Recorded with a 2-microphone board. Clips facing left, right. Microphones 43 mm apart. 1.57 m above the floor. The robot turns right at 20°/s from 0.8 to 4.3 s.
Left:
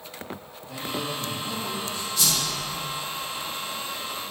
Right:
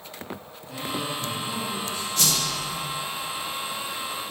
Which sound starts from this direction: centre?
A man speaking, at 0.7 s.